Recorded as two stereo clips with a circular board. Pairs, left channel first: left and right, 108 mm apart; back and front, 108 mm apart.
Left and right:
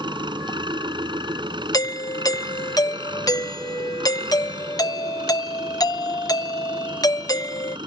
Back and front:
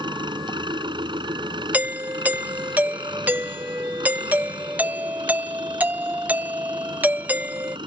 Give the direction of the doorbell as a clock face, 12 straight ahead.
10 o'clock.